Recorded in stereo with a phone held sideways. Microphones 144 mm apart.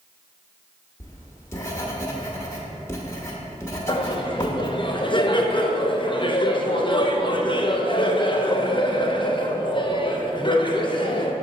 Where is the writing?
20° left (ahead or behind), 0.9 m.